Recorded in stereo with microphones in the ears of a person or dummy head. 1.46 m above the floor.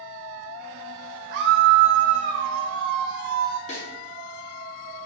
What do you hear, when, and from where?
1.3 s a scream: 60° right (ahead or behind), 0.5 m
3.7 s a snare drum: 35° left (ahead or behind), 2.5 m